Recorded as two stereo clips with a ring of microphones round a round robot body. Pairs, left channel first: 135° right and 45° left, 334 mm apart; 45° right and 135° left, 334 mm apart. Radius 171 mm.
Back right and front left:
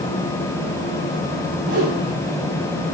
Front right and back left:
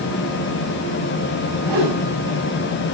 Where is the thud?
I don't hear a thud.